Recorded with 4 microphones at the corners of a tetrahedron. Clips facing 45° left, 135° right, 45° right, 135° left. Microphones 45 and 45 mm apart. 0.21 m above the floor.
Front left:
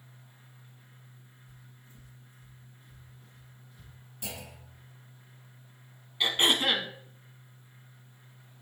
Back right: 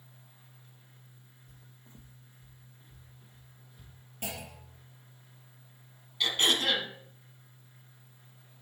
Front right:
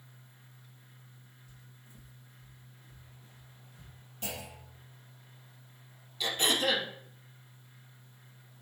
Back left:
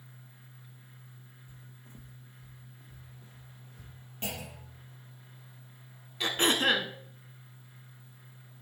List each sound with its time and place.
1.5 s footsteps: 155° right, 0.7 m; by 3.9 s 150° left, 2.5 m
4.2 s a clunk: 170° right, 3 m
6.2 s throat clearing: 105° left, 0.8 m